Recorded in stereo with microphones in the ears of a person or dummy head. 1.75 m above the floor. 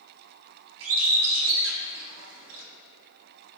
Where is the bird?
80° right, 1.3 m.